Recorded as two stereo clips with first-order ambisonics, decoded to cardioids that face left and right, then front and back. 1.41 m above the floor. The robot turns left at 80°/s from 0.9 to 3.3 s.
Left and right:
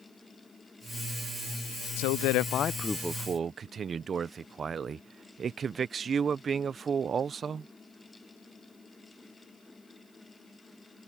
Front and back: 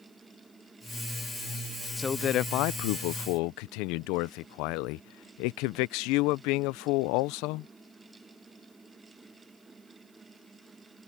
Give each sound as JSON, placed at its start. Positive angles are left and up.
{"t": 2.0, "sound": "a man speaking", "azimuth_deg": 85}